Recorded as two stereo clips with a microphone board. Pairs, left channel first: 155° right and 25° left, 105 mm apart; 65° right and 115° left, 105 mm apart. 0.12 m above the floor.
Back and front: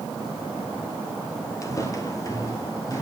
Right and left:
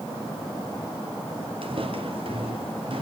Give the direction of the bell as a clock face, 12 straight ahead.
No bell in this recording.